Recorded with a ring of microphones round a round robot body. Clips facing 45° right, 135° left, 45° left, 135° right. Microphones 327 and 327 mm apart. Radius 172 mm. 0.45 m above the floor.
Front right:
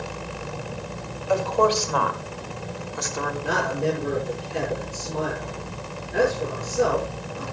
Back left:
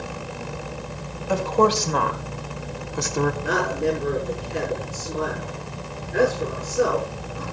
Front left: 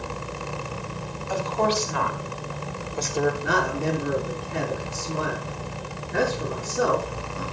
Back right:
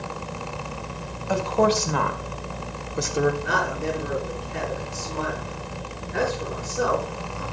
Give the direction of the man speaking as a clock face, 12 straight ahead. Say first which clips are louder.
Back left 2 dB, front left 2 dB; 10 o'clock.